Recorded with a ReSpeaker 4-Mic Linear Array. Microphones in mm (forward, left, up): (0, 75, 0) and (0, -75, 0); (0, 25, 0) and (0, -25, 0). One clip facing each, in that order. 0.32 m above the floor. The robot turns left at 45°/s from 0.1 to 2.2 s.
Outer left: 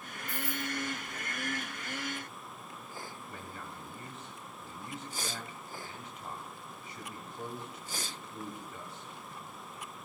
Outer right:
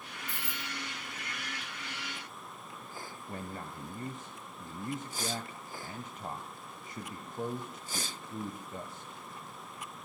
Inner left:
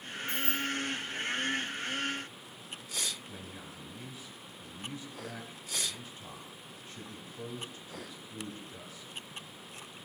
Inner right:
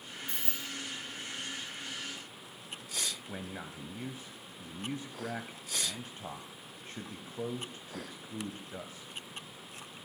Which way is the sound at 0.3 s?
75° right (ahead or behind).